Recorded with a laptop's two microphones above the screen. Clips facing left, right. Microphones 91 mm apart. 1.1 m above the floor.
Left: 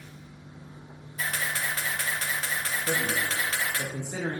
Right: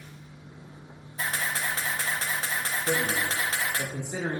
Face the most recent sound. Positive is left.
turn(degrees=-10)  # may be behind; listen again after turning